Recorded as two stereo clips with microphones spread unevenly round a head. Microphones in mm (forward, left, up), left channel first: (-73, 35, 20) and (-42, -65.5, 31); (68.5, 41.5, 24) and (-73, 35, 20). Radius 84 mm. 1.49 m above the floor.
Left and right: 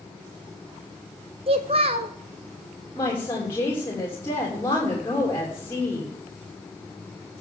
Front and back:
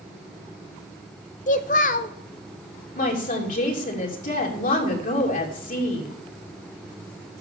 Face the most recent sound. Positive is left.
turn(degrees=35)